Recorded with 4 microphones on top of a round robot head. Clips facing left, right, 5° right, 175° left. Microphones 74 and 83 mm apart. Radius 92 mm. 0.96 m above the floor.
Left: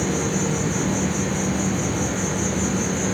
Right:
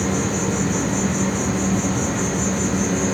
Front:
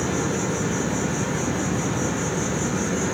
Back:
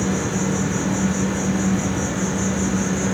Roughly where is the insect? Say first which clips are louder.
Right 1 dB, back 2 dB; ahead right.